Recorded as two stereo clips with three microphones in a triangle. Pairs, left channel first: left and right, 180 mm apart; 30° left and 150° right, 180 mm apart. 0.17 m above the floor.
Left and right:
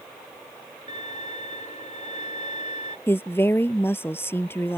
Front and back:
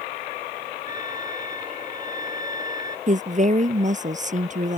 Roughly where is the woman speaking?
Behind.